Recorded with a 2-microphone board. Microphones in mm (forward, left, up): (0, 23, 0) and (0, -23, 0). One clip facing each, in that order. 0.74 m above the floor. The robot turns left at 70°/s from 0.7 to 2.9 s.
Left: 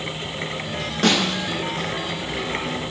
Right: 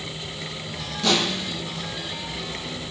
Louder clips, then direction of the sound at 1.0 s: Left 3 dB; 90° left.